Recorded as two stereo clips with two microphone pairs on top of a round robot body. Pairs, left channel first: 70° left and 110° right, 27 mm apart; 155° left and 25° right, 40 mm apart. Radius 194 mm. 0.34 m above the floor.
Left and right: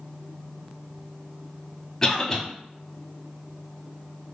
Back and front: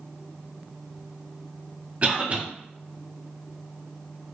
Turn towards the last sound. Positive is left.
turn(degrees=10)